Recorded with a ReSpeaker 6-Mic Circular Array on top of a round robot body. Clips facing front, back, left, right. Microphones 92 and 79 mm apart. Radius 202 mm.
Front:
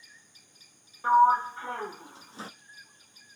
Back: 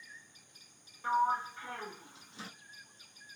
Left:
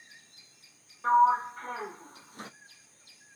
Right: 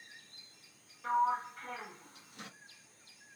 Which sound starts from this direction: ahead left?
A sliding door, at 1.0 s.